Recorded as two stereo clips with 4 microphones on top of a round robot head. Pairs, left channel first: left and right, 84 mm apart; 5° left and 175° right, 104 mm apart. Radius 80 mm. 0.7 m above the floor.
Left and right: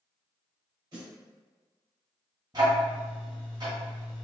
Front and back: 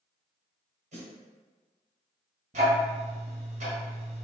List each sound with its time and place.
0.9 s a snare drum: 155° right, 1.8 m
2.5 s ticking: 150° right, 1.2 m